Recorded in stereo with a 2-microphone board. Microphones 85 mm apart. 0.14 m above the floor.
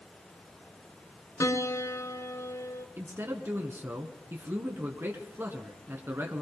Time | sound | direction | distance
1.4 | a piano | 40° left (ahead or behind) | 0.8 m
3.0 | a man speaking | 30° right (ahead or behind) | 1.5 m